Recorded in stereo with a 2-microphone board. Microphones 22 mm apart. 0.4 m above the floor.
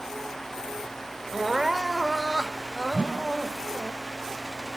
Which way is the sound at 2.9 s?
75° right (ahead or behind).